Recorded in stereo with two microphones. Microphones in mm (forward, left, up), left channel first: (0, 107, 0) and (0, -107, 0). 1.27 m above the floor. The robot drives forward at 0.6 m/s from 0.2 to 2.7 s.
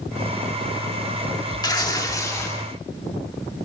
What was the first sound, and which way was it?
Tearing paper, 20° left (ahead or behind).